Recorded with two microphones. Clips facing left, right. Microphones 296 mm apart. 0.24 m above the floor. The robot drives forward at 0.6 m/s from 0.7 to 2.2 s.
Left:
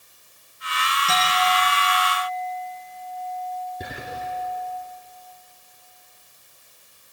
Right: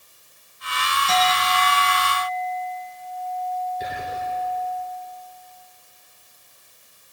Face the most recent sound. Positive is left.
turn(degrees=60)  # may be behind; listen again after turning